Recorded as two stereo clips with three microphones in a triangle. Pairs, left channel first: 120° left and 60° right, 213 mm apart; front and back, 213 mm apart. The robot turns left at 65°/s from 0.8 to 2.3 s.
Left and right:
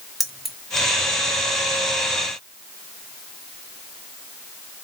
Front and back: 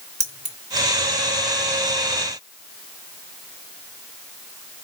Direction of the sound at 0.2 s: 150° right.